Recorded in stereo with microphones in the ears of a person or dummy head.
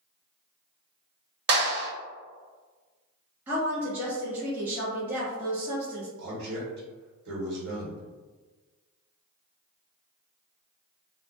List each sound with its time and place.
1.5 s a clap: 60° right (ahead or behind), 1.2 m
3.5 s a woman speaking: 10° right (ahead or behind), 0.6 m
6.2 s a man speaking: 70° right (ahead or behind), 1.3 m